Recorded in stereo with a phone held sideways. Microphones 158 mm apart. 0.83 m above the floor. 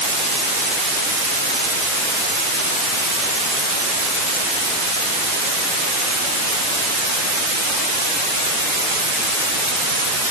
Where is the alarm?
I don't hear an alarm.